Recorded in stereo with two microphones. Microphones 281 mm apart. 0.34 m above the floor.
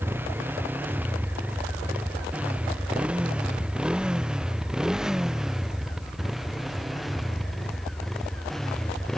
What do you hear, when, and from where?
0.0 s a motorcycle: 5° right (ahead or behind); by 9.2 s centre (ahead or behind)